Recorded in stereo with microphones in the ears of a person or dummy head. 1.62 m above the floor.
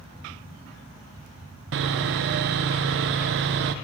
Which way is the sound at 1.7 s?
60° right (ahead or behind).